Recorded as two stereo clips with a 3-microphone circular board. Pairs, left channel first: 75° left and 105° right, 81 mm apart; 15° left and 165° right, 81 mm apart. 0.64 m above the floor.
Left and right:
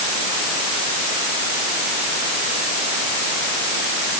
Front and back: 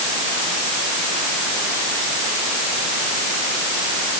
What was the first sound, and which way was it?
Only background noise.